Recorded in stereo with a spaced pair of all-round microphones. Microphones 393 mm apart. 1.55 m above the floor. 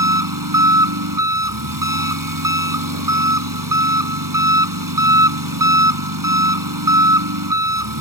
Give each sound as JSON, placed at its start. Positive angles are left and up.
{"t": 0.0, "sound": "an engine running", "side_deg": -60}